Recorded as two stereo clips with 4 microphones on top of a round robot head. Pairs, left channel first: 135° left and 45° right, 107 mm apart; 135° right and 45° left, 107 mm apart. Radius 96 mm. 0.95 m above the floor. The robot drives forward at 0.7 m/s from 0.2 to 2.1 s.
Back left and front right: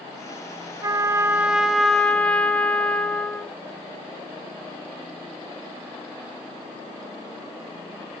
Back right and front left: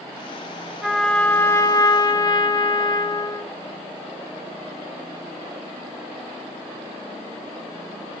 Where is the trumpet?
40° right, 0.9 m; by 3.5 s 150° right, 1.0 m.